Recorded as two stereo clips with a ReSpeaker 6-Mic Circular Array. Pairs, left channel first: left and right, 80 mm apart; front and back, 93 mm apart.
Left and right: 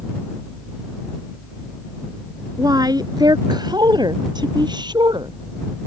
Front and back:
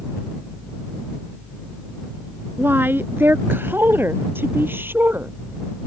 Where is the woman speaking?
115° right.